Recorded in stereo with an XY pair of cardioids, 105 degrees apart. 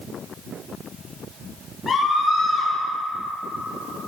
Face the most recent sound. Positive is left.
turn(degrees=40)